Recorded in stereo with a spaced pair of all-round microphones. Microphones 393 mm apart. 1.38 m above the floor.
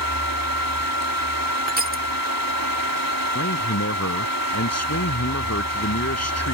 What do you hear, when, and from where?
0.0 s a fan: 60° right (ahead or behind)
1.7 s crushing: 20° right (ahead or behind)
3.4 s a man speaking: 40° left (ahead or behind)